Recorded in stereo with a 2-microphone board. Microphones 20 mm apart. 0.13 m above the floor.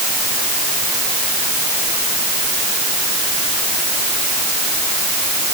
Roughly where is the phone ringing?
I don't hear a phone ringing.